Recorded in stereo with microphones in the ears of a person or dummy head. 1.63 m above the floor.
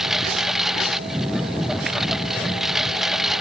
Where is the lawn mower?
5° right (ahead or behind).